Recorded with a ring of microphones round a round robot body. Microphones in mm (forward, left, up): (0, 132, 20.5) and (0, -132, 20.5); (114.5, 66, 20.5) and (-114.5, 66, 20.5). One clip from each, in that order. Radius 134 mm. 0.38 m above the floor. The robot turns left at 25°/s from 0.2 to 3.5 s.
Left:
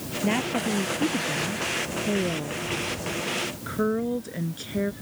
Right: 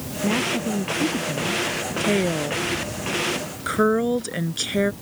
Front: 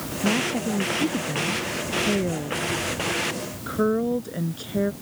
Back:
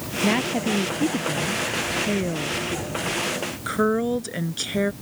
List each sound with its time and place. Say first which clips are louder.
0.2 s a woman speaking: right 3 dB, back 1 dB; 155° left; by 1.7 s 120° left
2.0 s a woman speaking: right 5 dB, even; 100° right; by 4.9 s 135° right